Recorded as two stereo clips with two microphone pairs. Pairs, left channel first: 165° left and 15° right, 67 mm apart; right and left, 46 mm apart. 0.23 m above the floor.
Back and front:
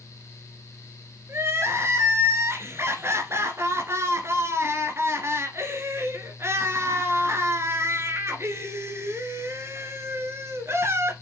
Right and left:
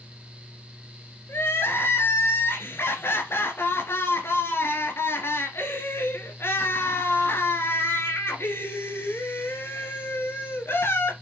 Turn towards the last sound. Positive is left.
turn(degrees=-65)